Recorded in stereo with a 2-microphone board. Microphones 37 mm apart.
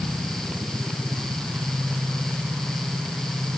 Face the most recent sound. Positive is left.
No sound to turn to.